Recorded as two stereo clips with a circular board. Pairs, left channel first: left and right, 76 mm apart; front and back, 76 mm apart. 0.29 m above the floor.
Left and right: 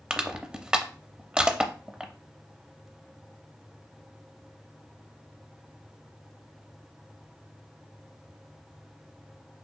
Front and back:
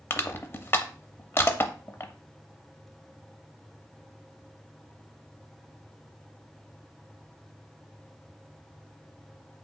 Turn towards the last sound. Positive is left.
turn(degrees=-20)